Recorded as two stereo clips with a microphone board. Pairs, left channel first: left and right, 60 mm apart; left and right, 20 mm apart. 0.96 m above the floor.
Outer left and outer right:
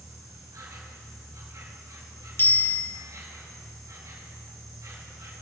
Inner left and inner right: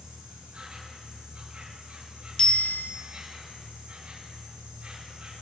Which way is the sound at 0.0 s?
75° right (ahead or behind).